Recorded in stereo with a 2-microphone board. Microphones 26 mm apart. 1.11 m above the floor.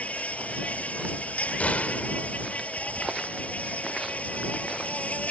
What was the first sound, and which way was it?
An insect, 60° left (ahead or behind).